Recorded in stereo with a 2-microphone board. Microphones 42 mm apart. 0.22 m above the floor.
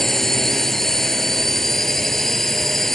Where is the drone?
10° left (ahead or behind).